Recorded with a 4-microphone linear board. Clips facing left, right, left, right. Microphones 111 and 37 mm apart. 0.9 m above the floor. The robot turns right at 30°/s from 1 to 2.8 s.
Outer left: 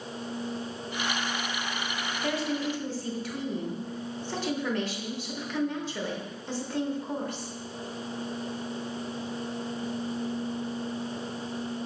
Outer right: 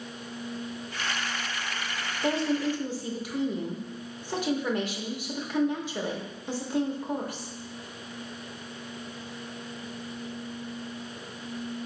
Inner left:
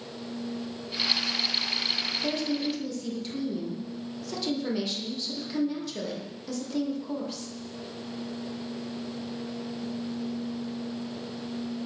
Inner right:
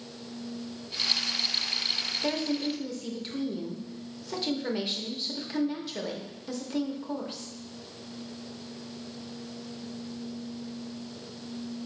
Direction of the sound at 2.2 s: 25° right (ahead or behind).